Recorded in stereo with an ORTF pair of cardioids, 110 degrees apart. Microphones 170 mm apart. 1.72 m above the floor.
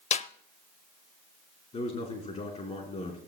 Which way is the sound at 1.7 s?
40° left.